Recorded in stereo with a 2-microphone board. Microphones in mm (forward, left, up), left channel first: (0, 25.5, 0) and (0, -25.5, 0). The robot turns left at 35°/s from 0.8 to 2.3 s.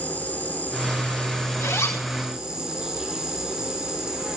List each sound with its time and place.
0.0 s an insect: 35° left, 3.5 m; by 4.4 s 15° right, 3.5 m
1.6 s a zipper: 85° left, 6 m; by 2.1 s 80° left, 6 m